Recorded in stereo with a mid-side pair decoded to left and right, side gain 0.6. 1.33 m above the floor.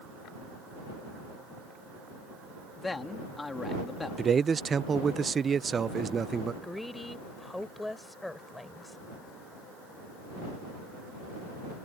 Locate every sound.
2.8 s a man speaking: 15° left
4.2 s a man speaking: 30° right
6.6 s a woman speaking: 10° left